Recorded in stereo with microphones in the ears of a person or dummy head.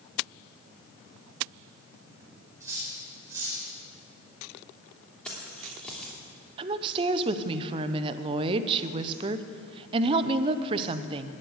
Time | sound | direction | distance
2.6 | cutlery clinking | 10° right (ahead or behind) | 4.5 m
5.2 | keys jangling | centre (ahead or behind) | 3 m
6.6 | a woman speaking | 35° right (ahead or behind) | 0.7 m